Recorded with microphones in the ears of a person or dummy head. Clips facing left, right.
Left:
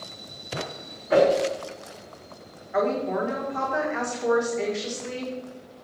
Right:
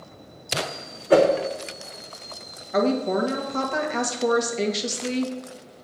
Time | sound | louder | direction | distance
1.1 | a whoosh | right 2 dB | 45° right (ahead or behind) | 1.2 m
2.7 | a woman speaking | right 3 dB | 50° right (ahead or behind) | 1.6 m